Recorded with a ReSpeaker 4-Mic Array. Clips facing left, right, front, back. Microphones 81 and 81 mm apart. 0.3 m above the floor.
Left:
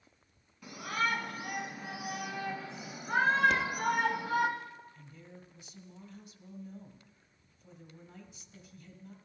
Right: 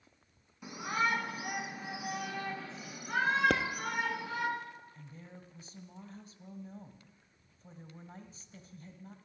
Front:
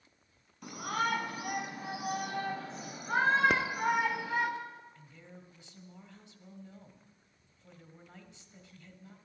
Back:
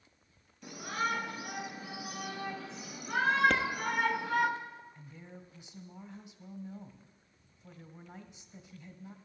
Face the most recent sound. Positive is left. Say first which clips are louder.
# right 1 dB, back 3 dB
turn(degrees=-115)